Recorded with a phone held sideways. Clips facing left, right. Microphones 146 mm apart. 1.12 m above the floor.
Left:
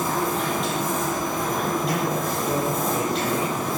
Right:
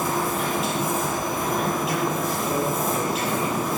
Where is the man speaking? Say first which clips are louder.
Even; 20° left (ahead or behind), 8.5 m.